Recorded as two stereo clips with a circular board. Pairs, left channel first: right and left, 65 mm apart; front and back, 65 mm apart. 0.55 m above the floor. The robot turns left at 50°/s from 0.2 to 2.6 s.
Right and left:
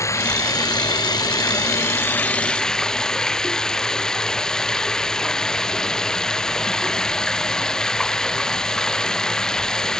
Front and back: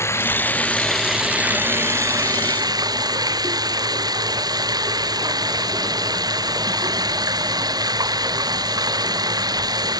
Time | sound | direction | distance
0.0 | running water | 50° right | ?